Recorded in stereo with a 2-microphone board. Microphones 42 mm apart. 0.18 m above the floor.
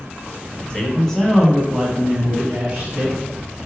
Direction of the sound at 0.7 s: 20° left (ahead or behind).